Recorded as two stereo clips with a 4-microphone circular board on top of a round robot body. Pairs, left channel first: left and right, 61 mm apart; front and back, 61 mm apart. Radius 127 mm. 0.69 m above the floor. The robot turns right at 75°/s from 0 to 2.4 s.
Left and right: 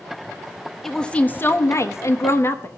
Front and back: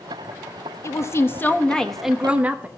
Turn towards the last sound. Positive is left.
turn(degrees=120)